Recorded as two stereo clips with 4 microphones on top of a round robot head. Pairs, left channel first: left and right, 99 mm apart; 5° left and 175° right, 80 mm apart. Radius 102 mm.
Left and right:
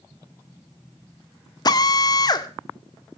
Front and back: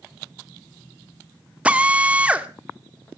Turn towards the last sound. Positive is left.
turn(degrees=115)